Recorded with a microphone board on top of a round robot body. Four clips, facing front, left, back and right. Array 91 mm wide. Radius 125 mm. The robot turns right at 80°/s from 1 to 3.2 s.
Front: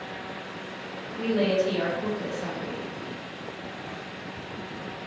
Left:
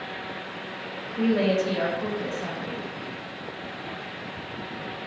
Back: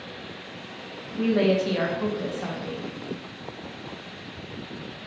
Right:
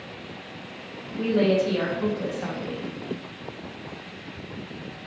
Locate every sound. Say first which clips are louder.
1.2 s a woman speaking: right 1 dB, back 2 dB; 130° left, 1.2 m; by 2.9 s 95° right, 1.2 m